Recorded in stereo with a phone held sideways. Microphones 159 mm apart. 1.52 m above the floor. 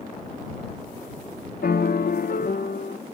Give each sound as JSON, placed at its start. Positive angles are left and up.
{"t": 1.6, "sound": "a piano", "side_deg": 80}